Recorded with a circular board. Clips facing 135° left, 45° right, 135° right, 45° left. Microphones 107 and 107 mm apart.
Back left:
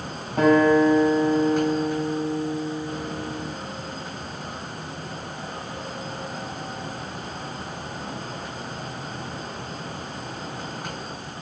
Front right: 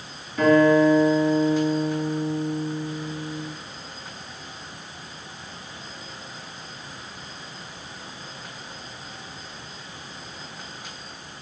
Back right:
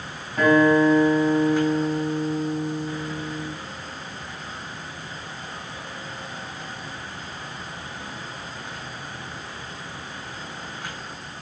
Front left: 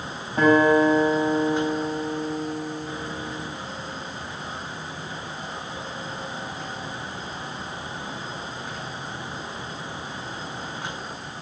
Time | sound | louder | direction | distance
0.4 | a guitar | even, even | 110° left | 3.5 m